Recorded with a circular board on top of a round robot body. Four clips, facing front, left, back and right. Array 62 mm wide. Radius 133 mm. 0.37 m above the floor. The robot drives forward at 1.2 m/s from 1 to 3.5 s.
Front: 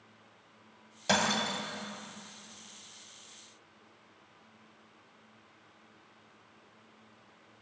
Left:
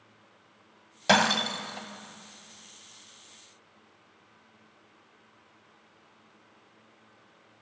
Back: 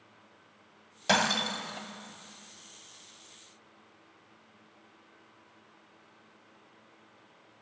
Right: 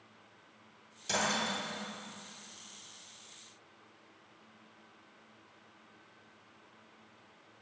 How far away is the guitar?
I don't hear a guitar.